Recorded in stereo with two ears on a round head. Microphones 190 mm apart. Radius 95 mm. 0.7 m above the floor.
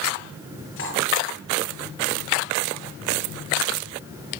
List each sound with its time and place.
0.8 s cutlery clinking: 65° left (ahead or behind), 8.5 m